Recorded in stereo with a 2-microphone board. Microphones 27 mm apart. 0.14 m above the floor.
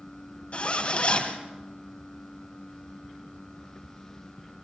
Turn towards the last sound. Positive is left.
turn(degrees=50)  # may be behind; listen again after turning